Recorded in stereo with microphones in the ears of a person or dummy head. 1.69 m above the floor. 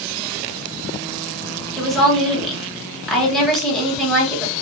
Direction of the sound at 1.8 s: Centre (ahead or behind).